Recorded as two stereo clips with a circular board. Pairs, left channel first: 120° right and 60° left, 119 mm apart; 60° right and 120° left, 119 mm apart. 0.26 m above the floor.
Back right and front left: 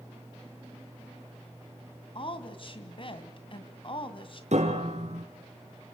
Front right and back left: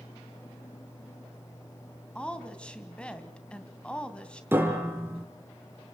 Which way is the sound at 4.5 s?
50° left.